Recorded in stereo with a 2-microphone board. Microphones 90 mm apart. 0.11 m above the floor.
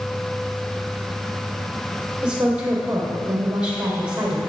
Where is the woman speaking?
10° right (ahead or behind), 3.5 m.